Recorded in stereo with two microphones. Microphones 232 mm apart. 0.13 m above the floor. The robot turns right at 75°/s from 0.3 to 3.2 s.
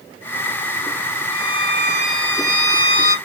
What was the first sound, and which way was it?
A violin, 90° right.